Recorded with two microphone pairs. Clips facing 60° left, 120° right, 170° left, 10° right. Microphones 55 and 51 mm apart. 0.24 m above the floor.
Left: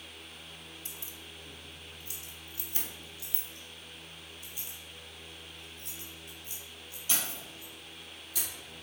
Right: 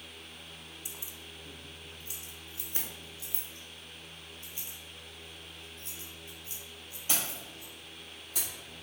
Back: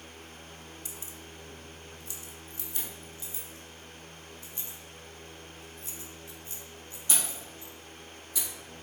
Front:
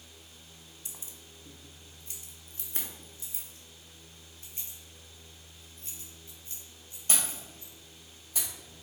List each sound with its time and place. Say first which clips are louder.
0.8 s keys jangling: even, back 6 dB; 55° right, 0.9 m; by 8.5 s 65° right, 4.5 m